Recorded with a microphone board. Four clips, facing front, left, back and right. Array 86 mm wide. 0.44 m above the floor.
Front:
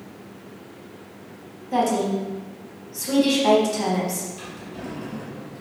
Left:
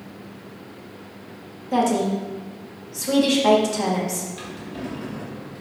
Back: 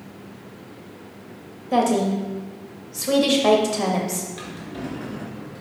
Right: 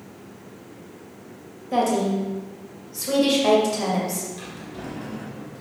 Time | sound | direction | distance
1.7 | a woman speaking | 175° right | 2.0 m
4.4 | a drawer | 160° left | 2.5 m